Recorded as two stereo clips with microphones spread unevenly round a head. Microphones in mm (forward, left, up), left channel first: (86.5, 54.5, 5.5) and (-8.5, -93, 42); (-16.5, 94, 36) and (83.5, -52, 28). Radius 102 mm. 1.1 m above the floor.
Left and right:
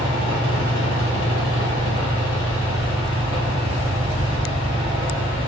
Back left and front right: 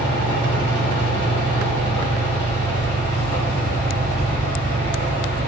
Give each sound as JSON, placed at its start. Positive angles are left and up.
{"t": 0.0, "sound": "a fan", "azimuth_deg": 60, "distance_m": 1.7}